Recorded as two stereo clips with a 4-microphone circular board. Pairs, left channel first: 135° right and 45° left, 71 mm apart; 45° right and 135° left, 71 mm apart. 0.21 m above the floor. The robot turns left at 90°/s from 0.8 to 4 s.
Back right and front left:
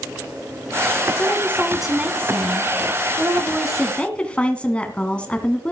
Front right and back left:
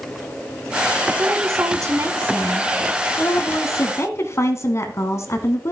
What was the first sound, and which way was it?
A woman speaking, 170° right.